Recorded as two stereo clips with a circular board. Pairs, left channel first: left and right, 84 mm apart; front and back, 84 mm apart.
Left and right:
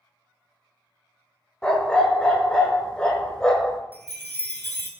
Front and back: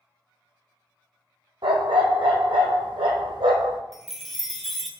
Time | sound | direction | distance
1.6 | a dog barking | 170° left | 1.1 m
3.9 | a chime | 85° left | 0.7 m